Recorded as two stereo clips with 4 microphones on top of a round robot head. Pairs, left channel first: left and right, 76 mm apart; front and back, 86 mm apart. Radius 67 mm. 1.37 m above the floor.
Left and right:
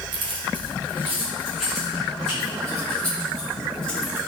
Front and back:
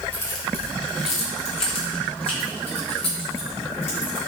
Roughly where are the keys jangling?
Right.